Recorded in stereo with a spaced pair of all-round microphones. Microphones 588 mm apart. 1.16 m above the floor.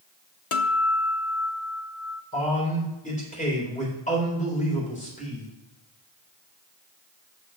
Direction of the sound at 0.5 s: 60° left (ahead or behind).